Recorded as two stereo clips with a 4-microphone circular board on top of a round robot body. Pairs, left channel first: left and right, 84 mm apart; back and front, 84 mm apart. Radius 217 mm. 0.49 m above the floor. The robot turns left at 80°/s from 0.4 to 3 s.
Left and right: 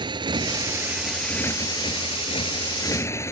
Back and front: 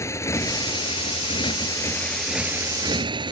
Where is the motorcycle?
120° right; by 3.3 s 30° left.